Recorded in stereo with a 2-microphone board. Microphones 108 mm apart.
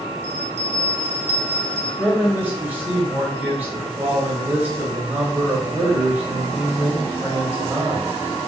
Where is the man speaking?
15° right (ahead or behind), 1.4 m.